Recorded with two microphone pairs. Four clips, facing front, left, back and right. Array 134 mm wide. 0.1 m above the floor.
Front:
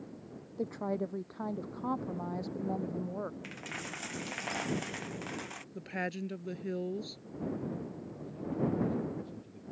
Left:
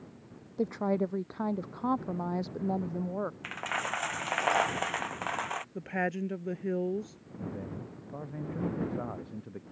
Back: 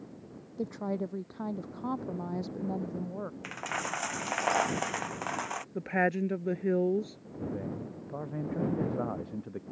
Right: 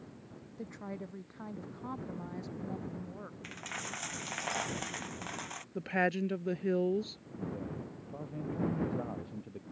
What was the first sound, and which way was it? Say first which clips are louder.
A woman speaking: left 14 dB, back 1 dB; 85° left.